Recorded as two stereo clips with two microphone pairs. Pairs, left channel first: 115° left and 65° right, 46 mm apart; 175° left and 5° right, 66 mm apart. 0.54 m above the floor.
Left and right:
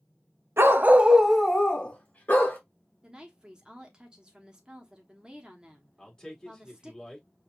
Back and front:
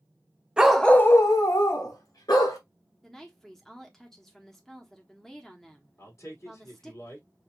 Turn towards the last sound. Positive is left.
turn(degrees=-175)